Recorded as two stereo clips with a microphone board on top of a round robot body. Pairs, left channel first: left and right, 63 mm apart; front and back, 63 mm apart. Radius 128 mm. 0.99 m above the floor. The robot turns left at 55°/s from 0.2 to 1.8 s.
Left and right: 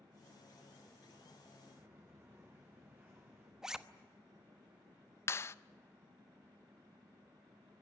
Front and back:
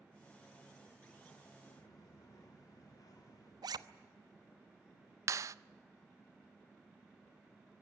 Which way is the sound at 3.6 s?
170° right.